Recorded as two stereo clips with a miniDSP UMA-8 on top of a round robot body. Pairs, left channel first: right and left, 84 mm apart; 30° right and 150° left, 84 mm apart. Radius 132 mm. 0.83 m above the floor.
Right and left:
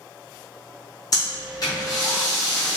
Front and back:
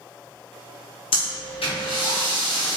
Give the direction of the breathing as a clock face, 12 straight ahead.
1 o'clock.